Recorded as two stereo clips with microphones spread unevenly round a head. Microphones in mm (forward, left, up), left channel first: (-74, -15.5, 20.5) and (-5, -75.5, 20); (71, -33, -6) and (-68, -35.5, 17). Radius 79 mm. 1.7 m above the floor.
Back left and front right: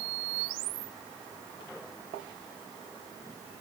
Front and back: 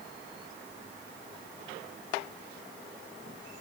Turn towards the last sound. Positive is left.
No sound to turn to.